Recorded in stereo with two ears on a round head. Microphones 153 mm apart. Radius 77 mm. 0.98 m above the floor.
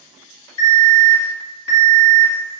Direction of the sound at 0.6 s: 20° left (ahead or behind).